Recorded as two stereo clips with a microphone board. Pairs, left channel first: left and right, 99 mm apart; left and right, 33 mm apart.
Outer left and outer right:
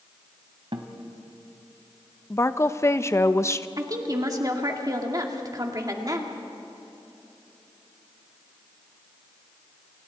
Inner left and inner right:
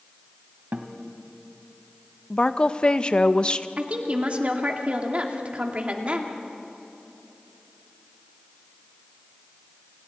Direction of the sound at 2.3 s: 30° left (ahead or behind).